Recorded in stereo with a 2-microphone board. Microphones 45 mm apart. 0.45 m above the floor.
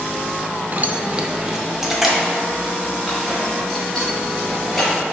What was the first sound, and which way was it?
Keys jangling, 40° right (ahead or behind).